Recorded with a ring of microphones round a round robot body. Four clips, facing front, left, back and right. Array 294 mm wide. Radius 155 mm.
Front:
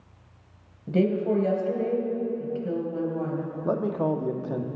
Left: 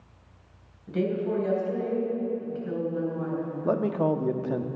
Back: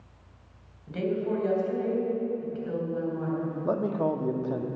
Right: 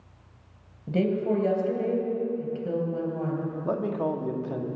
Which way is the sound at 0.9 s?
45° right.